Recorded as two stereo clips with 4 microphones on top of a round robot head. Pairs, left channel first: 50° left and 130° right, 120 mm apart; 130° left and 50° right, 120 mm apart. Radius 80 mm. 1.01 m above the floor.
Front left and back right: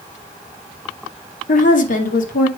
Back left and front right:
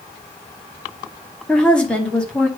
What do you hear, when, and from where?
1.5 s a woman speaking: 50° left, 2 m